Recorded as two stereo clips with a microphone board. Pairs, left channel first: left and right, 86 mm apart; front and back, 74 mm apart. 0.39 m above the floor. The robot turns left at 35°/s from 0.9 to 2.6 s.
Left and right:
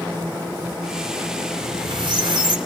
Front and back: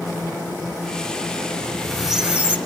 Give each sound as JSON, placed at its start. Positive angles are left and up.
{"t": 1.6, "sound": "a squeak", "azimuth_deg": -80, "distance_m": 1.8}